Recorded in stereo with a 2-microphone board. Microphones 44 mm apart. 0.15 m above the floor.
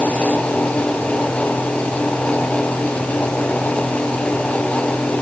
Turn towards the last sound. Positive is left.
No sound to turn to.